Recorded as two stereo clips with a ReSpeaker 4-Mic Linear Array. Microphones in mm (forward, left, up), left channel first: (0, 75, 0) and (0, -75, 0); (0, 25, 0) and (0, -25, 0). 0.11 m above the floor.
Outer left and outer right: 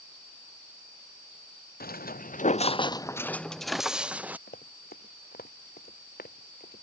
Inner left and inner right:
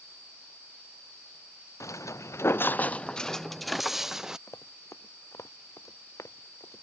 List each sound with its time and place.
1.8 s footsteps: 90° left; by 4.4 s 10° right (ahead or behind)
4.5 s running footsteps: 90° left; by 6.8 s 80° left